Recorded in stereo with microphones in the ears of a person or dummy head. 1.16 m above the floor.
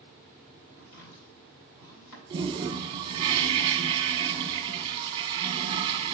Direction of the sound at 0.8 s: 75° left (ahead or behind).